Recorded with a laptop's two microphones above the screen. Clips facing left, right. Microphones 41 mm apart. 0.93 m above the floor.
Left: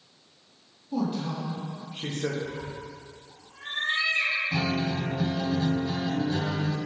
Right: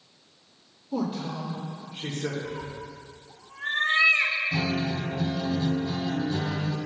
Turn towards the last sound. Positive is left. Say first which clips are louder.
# even
turn(degrees=25)  # may be behind; listen again after turning